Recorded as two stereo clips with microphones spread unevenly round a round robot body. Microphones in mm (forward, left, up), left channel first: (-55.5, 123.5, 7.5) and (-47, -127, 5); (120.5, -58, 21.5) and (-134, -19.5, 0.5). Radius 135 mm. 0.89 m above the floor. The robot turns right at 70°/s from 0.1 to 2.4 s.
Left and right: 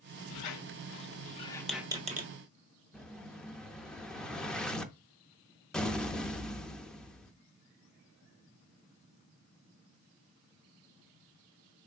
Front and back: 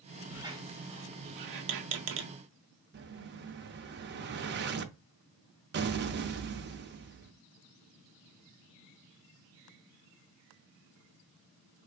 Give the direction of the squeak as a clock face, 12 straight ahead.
9 o'clock.